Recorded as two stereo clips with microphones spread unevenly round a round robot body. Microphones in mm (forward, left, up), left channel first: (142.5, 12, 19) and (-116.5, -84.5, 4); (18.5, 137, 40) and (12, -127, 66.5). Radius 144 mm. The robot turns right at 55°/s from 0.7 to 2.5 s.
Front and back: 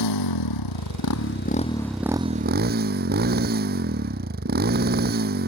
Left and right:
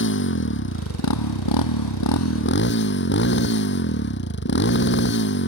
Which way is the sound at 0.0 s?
40° left.